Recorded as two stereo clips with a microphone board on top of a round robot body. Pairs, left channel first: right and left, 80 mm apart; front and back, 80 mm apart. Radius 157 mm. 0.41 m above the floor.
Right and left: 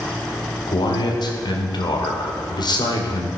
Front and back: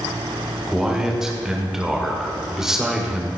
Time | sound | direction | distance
0.7 | a man speaking | 95° right | 2 m